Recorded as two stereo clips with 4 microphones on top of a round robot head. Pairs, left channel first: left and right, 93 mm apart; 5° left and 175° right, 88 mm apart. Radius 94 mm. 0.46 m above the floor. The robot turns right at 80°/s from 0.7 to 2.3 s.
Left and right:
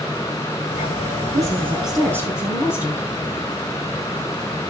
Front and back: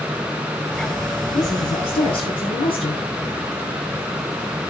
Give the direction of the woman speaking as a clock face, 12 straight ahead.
2 o'clock.